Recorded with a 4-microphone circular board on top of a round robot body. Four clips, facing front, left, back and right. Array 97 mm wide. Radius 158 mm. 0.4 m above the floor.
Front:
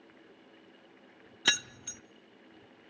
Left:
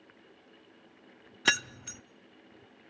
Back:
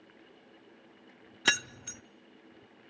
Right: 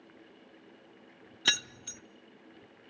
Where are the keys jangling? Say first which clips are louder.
Left 6 dB, back 3 dB; 120° left, 0.6 m.